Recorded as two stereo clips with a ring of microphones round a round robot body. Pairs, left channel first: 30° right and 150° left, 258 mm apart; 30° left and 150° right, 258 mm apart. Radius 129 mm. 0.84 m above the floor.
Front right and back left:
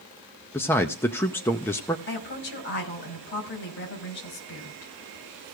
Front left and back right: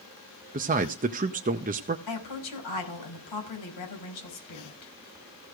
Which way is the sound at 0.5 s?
110° right.